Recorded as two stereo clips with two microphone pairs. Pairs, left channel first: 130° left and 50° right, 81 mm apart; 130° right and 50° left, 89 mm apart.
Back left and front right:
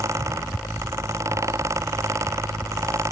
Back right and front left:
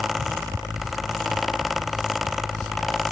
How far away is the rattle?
I don't hear a rattle.